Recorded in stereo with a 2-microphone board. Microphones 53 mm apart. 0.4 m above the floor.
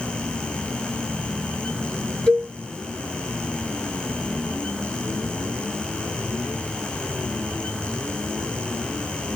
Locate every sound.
2.3 s a cowbell: 15° left (ahead or behind), 2 m